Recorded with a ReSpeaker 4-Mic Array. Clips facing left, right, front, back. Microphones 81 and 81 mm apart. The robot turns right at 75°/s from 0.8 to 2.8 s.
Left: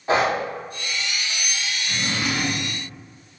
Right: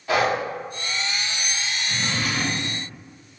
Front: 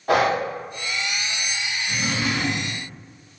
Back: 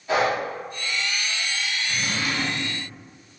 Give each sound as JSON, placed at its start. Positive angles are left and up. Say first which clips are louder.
{"t": 0.1, "sound": "breathing", "louder": "left 1 dB, front 3 dB", "azimuth_deg": 30, "distance_m": 0.6}
{"t": 1.9, "sound": "a drawer", "louder": "left 2 dB, front 4 dB", "azimuth_deg": 15, "distance_m": 1.8}